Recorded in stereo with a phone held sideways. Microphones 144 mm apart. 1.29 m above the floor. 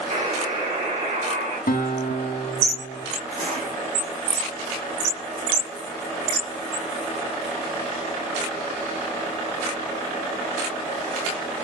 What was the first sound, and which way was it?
A buzzer, 35° right (ahead or behind).